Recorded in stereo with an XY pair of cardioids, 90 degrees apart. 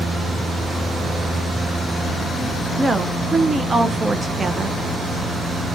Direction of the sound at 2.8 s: 25° right.